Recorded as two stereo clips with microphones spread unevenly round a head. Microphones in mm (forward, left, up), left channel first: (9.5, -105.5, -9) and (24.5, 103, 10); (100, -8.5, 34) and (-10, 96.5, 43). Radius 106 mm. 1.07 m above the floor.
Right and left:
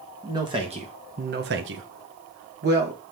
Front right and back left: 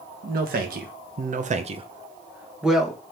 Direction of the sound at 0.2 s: 160° left.